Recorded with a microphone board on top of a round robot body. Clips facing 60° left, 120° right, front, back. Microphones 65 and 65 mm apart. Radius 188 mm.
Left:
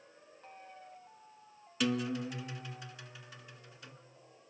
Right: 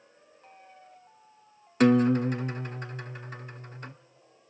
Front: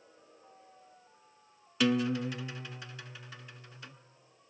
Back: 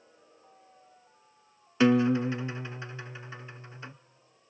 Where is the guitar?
125° right, 1.0 m.